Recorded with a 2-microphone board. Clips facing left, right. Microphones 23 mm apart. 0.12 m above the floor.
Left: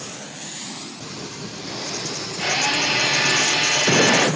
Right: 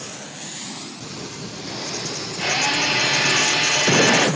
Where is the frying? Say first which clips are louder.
Even; 65° left (ahead or behind), 4.5 m.